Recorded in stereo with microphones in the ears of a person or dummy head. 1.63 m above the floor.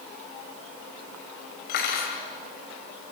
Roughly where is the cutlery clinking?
Left.